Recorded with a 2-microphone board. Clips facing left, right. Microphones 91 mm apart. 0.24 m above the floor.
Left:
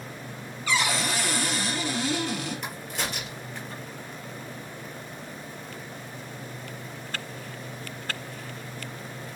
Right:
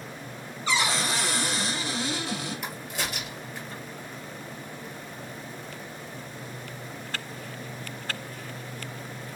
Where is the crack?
5° right (ahead or behind), 2.5 m.